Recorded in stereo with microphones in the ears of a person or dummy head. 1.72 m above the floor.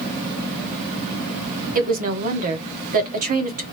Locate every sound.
1.8 s a woman speaking: 45° right (ahead or behind), 1.0 m